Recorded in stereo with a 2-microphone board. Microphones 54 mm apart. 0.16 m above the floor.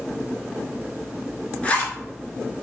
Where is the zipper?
25° left (ahead or behind), 0.8 m.